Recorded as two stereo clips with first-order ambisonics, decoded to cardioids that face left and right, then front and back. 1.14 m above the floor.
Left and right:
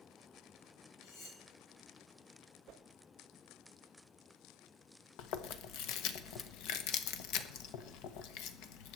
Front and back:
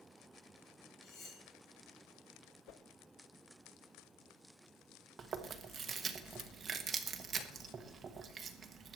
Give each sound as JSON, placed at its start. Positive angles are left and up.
{"t": 1.0, "sound": "cutlery clinking", "azimuth_deg": 50, "distance_m": 4.0}
{"t": 2.7, "sound": "a whoosh", "azimuth_deg": -40, "distance_m": 0.6}
{"t": 5.2, "sound": "chewing", "azimuth_deg": 115, "distance_m": 1.1}